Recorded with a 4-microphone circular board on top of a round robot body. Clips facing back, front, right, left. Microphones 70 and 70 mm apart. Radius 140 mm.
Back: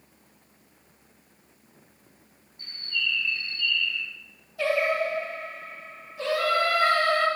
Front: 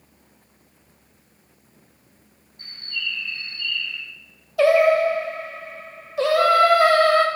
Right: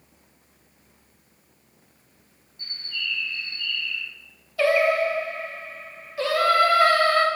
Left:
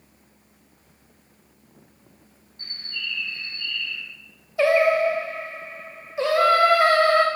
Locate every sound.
2.6 s a bird: 45° left, 2 m
4.6 s singing: 20° left, 0.6 m